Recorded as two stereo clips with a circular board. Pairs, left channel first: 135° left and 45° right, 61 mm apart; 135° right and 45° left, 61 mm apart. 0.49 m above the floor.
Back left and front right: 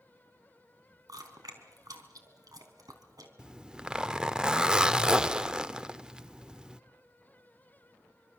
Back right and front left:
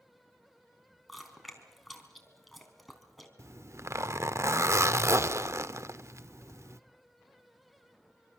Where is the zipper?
30° left, 0.7 m.